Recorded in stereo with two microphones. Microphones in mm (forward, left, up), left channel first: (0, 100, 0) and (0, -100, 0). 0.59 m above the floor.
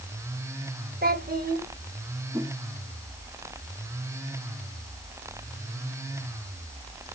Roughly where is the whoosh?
Centre.